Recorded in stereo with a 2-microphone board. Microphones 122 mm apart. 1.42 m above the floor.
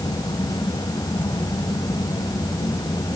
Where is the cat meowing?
No cat meowing in this recording.